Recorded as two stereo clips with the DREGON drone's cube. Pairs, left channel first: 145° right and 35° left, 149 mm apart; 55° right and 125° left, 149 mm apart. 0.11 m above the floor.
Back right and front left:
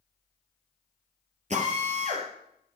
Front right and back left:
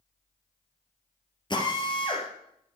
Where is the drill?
Straight ahead, 3.5 m.